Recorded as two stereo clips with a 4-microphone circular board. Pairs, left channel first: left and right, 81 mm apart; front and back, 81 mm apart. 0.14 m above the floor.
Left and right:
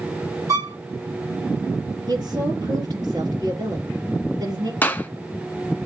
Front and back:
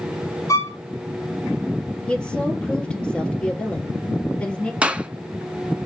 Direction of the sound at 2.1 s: 75° right.